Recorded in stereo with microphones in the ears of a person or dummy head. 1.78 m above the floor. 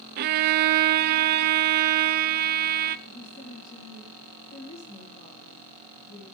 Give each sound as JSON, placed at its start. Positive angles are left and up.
{"t": 0.2, "sound": "a violin", "side_deg": -45, "distance_m": 0.7}
{"t": 3.1, "sound": "a woman speaking", "side_deg": 45, "distance_m": 3.5}